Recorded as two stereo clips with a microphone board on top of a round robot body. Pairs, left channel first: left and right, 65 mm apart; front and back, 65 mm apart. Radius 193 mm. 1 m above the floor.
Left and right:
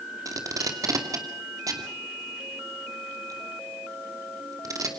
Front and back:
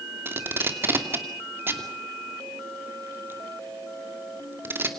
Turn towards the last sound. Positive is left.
turn(degrees=-125)